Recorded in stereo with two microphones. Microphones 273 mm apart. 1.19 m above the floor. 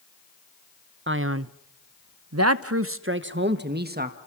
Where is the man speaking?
40° right (ahead or behind), 0.9 m; by 4.2 s 30° right (ahead or behind), 1.7 m.